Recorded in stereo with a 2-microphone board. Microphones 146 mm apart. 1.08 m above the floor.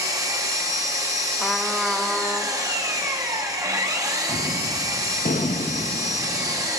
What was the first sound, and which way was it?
An engine running, 20° right (ahead or behind).